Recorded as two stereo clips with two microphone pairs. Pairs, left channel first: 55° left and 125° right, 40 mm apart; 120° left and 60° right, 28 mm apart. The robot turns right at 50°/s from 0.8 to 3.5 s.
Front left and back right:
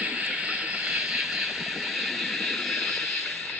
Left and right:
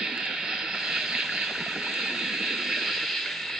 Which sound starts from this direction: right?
An insect, at 0.0 s.